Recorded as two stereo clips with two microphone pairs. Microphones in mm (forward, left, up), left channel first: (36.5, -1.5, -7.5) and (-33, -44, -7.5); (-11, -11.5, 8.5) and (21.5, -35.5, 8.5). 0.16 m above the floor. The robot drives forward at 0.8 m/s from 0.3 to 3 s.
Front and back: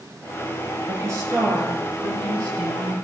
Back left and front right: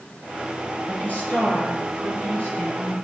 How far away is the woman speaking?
About 2 m.